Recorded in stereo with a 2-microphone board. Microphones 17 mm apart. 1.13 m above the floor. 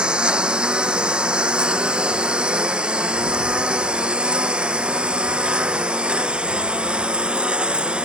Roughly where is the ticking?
No ticking in this recording.